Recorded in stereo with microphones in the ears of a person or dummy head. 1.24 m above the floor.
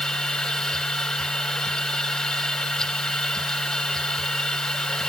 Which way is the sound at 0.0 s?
10° left (ahead or behind).